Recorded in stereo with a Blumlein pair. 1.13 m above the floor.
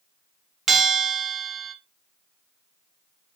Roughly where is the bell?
Ahead.